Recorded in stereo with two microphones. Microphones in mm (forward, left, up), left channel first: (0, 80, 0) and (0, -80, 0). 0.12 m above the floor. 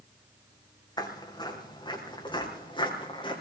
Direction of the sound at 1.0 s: 25° left (ahead or behind).